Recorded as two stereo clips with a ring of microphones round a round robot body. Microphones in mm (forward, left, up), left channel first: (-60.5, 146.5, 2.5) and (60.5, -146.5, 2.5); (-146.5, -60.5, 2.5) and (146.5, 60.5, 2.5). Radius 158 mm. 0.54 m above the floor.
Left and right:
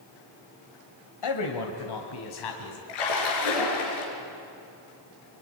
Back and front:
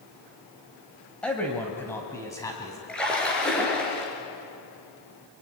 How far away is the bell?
No bell in this recording.